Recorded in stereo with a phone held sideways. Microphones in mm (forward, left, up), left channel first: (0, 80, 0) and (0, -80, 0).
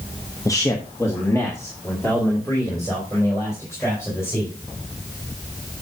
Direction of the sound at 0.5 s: 20° left (ahead or behind).